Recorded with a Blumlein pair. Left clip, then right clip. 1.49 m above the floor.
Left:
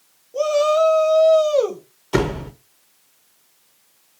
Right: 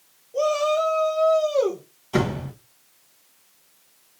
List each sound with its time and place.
0.3 s a shout: 10° left, 1.0 m; by 1.8 s 80° left, 0.9 m
2.1 s a door slam: 40° left, 1.0 m